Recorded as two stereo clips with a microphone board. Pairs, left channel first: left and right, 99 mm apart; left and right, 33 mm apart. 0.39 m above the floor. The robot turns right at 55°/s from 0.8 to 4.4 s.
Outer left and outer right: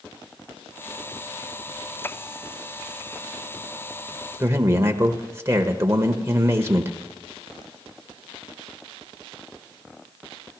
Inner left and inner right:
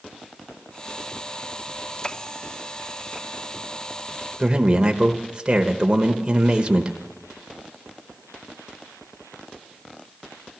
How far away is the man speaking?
About 1.0 m.